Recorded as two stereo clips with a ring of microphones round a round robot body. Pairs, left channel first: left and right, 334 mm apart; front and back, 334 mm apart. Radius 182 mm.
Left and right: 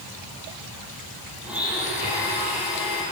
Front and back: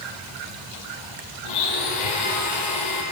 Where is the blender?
5° right, 5.5 m.